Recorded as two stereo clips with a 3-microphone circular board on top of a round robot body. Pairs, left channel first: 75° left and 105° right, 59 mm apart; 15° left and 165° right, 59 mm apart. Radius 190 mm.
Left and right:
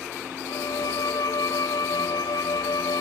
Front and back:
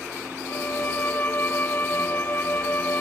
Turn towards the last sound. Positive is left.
turn(degrees=75)